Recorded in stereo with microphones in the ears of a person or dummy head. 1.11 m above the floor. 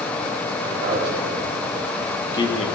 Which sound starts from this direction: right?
A man speaking, at 0.6 s.